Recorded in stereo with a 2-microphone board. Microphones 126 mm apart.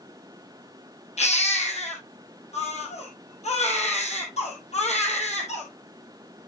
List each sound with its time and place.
1.2 s a baby crying: 60° left (ahead or behind), 2.5 m